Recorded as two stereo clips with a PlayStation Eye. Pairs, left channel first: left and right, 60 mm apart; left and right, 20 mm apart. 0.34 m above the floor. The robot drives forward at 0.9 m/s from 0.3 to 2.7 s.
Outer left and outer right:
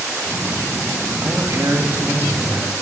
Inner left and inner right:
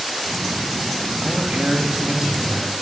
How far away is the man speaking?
About 1.4 m.